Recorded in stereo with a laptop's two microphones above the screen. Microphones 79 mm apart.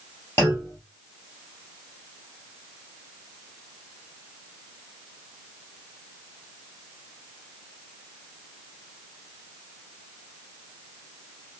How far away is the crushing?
I don't hear crushing.